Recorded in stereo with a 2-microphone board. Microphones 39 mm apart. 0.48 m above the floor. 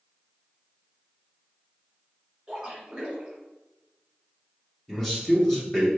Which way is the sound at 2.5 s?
20° right (ahead or behind).